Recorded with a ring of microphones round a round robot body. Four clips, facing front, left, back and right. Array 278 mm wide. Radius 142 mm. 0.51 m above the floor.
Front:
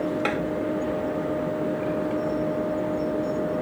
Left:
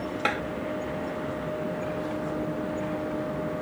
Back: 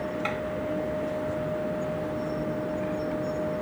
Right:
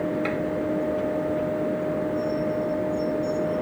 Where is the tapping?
60° left.